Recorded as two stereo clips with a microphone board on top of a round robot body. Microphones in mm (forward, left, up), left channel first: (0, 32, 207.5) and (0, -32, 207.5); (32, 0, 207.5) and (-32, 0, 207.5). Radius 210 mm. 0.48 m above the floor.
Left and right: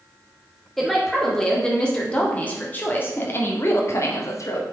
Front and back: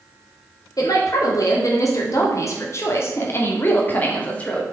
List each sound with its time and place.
0.8 s a woman speaking: 5° left, 2.5 m; by 4.6 s 70° left, 2 m